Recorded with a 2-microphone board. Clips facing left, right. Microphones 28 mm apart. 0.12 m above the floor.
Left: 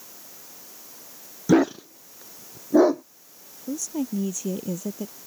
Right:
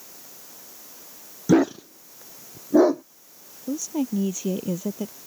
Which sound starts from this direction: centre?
A dog barking, at 1.5 s.